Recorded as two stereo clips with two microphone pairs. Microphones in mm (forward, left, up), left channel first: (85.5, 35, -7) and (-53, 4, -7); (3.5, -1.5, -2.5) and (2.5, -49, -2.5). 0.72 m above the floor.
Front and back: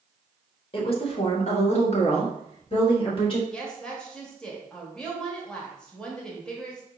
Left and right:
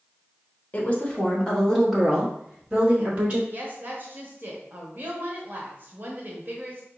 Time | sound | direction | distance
0.7 | a woman speaking | 45° left | 1.1 m
3.5 | a woman speaking | 65° right | 1.1 m